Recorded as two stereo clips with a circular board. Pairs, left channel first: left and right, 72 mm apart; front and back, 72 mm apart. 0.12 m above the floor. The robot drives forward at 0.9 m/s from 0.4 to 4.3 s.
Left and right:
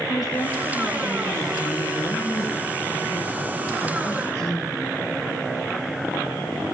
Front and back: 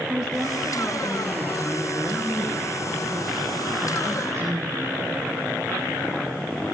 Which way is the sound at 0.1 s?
105° left.